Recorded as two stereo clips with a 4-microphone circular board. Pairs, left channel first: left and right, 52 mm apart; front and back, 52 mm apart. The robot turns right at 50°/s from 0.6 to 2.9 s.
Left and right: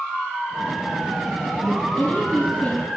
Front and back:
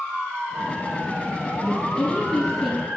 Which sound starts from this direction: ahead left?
A woman speaking, at 1.6 s.